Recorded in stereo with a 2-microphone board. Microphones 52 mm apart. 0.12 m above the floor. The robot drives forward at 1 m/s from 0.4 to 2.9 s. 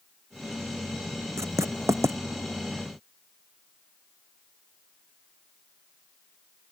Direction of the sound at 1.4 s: 75° right (ahead or behind).